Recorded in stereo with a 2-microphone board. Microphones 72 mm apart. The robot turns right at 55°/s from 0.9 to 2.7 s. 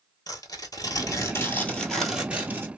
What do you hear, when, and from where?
0.3 s tearing paper: 120° left, 0.9 m; by 2.7 s 145° right, 0.9 m